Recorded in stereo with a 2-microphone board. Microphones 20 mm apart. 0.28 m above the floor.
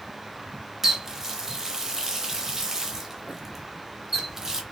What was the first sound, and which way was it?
A running tap, 25° right (ahead or behind).